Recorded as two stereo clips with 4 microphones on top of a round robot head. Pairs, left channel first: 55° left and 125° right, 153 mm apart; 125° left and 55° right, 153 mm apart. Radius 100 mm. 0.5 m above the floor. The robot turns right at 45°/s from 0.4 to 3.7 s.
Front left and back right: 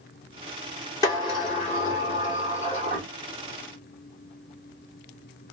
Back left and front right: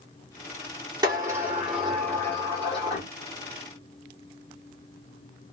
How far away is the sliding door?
About 1.8 m.